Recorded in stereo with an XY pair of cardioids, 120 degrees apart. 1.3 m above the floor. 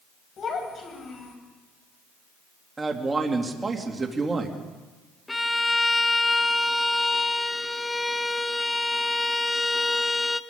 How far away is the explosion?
I don't hear an explosion.